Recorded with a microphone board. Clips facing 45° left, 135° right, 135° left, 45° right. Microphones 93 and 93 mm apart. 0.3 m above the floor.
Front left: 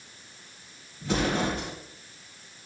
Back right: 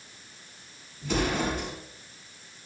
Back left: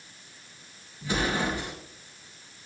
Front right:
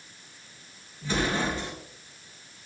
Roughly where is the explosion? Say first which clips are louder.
Front left 1 dB, even; ahead left.